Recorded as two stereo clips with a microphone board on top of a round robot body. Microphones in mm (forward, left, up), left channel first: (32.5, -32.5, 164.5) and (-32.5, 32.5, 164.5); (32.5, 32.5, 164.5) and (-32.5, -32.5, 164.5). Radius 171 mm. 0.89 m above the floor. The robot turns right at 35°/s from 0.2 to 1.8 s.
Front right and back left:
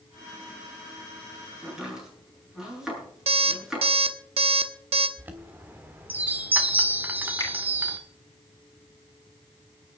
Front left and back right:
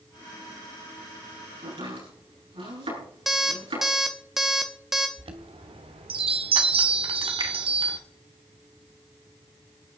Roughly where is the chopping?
Behind right.